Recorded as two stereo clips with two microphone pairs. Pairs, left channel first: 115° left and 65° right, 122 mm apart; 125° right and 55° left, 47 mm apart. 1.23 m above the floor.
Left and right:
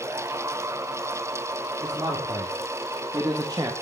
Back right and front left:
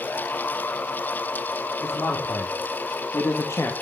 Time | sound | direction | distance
1.8 | a man speaking | 120° right | 4.5 m